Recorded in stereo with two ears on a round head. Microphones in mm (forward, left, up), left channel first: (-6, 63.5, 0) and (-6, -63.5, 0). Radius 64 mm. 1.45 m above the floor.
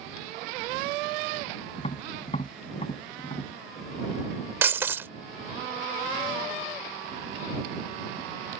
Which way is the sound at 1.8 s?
40° left (ahead or behind).